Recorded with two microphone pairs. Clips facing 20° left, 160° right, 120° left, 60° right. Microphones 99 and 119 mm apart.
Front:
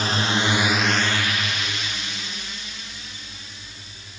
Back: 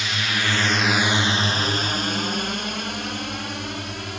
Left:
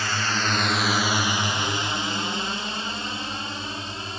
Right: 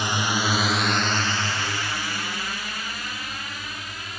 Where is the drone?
5° left; by 4.2 s straight behind.